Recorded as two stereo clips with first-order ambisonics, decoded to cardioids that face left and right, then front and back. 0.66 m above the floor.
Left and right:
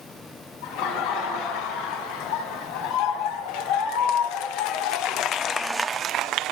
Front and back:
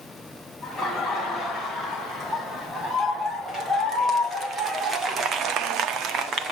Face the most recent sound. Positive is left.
turn(degrees=-125)